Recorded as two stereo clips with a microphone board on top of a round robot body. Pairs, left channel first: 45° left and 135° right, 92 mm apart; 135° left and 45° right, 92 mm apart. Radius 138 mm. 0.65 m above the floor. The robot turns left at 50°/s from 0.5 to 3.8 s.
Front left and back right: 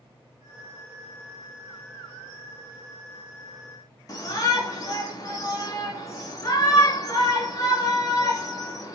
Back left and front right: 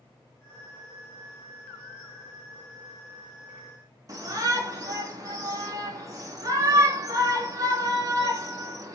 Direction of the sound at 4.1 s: Straight ahead.